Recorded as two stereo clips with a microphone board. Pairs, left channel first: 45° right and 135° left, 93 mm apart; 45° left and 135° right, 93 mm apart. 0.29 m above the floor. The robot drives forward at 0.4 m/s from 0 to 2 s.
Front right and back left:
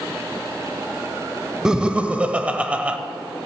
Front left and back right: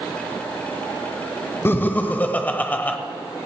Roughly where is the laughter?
Ahead left.